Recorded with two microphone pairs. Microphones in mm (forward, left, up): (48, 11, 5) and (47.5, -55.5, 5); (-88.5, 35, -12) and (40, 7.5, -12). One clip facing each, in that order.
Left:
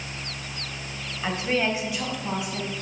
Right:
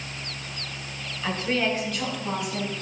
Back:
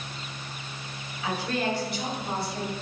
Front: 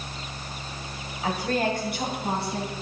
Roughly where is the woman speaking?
Ahead left.